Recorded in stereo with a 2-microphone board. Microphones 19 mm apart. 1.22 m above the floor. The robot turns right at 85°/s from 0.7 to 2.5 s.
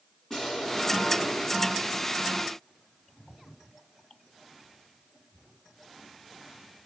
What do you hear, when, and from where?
0.3 s an explosion: 25° left, 2.5 m; by 2.1 s 145° left, 2.5 m